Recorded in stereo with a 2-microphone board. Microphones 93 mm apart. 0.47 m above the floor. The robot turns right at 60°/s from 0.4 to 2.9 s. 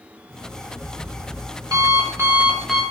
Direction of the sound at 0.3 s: 145° right.